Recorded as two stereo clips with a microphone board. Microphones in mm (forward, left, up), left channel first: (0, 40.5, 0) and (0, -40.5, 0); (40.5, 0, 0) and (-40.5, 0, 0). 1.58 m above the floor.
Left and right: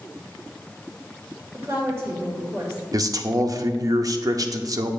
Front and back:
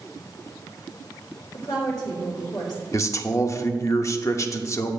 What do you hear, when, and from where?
1.5 s a woman speaking: 30° right, 2 m
2.9 s a man speaking: 50° right, 0.6 m